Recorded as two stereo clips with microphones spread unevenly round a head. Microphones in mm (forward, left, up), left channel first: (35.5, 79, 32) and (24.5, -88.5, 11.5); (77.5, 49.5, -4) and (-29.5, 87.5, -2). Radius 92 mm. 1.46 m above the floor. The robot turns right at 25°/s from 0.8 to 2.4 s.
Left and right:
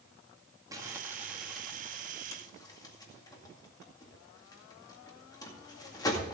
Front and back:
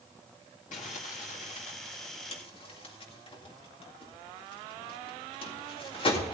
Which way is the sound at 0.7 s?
20° right.